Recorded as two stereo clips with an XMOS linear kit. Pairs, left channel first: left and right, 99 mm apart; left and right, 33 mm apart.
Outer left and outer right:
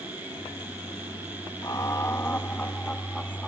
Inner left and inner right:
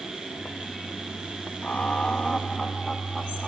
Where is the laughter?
40° left (ahead or behind); by 3.5 s 5° left (ahead or behind).